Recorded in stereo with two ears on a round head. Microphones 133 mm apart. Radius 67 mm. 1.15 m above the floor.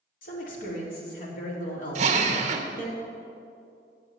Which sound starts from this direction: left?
A man speaking, at 0.2 s.